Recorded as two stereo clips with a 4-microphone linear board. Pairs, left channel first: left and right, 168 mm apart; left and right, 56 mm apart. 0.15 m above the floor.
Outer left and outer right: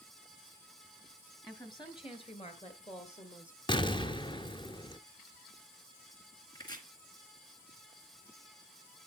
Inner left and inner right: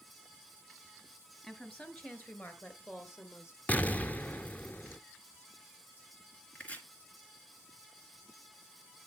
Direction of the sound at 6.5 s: 25° left (ahead or behind).